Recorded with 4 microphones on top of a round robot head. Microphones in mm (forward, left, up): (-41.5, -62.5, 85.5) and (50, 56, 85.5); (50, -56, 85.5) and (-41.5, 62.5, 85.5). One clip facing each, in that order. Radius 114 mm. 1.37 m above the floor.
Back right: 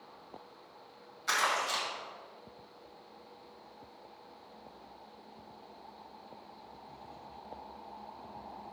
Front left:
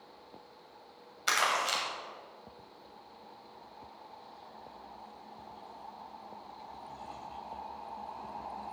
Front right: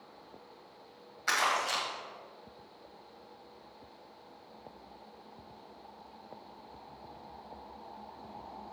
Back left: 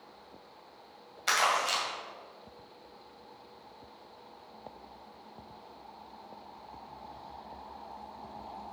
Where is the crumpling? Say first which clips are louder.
Front left 1 dB, back left 2 dB; 60° left, 2.5 m.